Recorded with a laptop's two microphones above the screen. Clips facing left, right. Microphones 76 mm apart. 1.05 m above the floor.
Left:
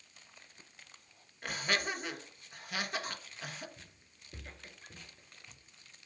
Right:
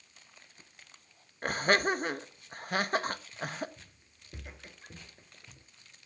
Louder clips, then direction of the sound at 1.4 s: Right 8 dB; 45° right (ahead or behind).